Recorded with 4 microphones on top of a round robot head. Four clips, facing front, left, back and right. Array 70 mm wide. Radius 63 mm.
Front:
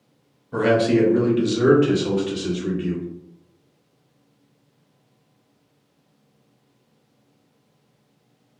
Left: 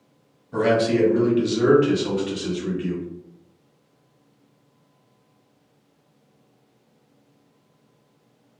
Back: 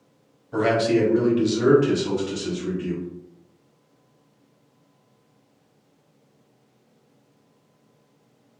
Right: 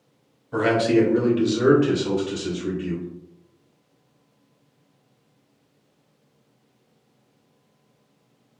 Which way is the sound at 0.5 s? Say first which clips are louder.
Right 1 dB, front 2 dB; 75° right.